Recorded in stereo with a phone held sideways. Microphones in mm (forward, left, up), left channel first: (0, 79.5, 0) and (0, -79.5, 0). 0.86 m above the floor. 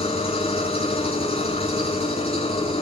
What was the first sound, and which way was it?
An engine running, 40° left (ahead or behind).